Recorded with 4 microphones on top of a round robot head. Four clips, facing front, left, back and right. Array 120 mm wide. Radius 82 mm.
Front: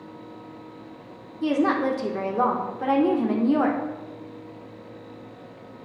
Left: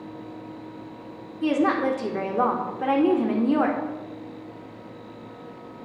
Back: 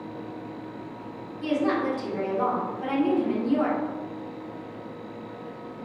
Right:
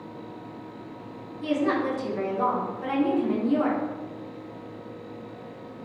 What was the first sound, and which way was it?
A woman speaking, 55° left.